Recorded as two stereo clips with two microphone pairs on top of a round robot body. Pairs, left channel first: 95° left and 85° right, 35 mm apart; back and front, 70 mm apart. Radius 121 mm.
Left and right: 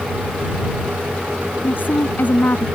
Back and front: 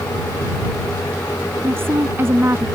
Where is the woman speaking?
55° left.